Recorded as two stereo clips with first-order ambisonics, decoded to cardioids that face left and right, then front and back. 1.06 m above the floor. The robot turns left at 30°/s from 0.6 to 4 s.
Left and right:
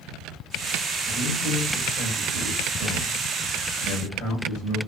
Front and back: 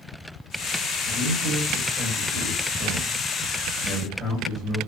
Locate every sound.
1.1 s a man speaking: 160° left, 2 m; by 4.8 s 75° left, 2 m